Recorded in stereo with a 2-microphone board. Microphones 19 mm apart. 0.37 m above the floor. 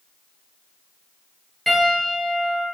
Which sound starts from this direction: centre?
A piano, at 1.7 s.